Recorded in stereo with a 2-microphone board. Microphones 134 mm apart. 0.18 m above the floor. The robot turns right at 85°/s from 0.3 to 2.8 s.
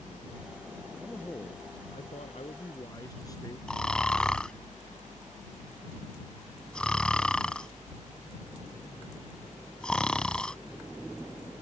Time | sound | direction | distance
1.0 | a man speaking | 10° right | ?
3.7 | snoring | 5° left (ahead or behind) | ?